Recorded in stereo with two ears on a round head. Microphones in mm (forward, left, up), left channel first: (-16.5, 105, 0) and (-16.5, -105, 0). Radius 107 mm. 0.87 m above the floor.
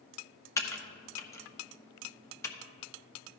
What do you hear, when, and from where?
0.6 s typing on a keyboard: 15° left (ahead or behind), 1.0 m